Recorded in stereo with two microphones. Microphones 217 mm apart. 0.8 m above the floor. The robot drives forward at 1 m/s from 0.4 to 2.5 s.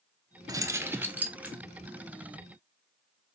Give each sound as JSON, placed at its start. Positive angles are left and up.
{"t": 0.5, "sound": "keys jangling", "side_deg": -15, "distance_m": 0.6}